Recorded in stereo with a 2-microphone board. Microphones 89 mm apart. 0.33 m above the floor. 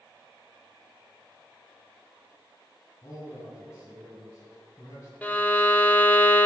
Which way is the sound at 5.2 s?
15° left (ahead or behind).